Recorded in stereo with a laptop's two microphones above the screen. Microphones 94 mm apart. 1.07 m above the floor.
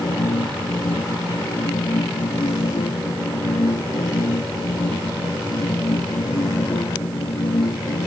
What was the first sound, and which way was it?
A machine running, 90° left.